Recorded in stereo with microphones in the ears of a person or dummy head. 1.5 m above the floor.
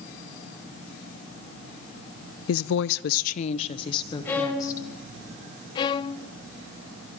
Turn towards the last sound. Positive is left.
turn(degrees=25)  # may be behind; listen again after turning